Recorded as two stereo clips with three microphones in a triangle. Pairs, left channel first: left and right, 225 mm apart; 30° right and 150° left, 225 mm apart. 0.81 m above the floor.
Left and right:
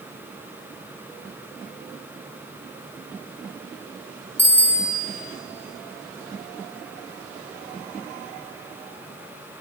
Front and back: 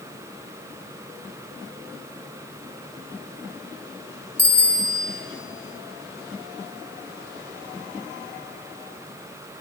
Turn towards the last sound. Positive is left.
turn(degrees=10)